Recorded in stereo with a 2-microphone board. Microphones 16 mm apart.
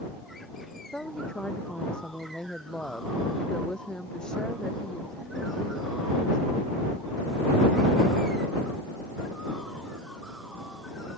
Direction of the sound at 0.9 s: 70° left (ahead or behind).